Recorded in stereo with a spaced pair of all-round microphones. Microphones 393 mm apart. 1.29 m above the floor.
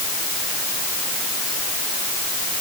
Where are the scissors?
I don't hear scissors.